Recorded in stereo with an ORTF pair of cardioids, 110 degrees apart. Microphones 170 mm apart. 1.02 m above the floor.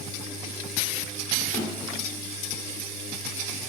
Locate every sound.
1.5 s a snare drum: 25° left, 2.0 m